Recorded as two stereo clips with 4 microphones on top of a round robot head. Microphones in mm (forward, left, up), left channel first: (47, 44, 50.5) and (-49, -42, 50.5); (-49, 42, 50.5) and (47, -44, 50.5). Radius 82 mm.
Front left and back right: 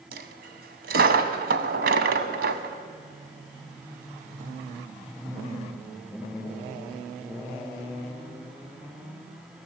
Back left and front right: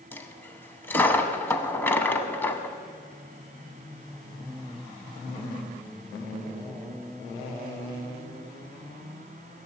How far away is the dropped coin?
About 0.9 m.